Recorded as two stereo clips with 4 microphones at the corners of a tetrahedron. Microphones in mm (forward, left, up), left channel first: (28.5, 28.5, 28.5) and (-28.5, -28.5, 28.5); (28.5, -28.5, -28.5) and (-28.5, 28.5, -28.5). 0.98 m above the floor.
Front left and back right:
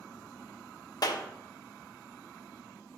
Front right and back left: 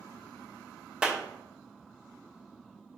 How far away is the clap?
About 1.0 m.